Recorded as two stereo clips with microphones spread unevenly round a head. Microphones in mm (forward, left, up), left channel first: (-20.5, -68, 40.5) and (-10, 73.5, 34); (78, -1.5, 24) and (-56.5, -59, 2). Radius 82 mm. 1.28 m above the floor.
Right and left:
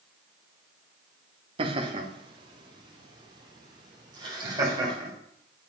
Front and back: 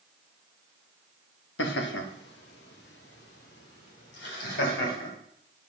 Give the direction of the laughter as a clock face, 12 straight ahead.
11 o'clock.